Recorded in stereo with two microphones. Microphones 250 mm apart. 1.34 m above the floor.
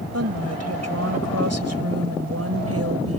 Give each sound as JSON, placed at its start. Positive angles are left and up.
{"t": 0.1, "sound": "a woman speaking", "side_deg": -90}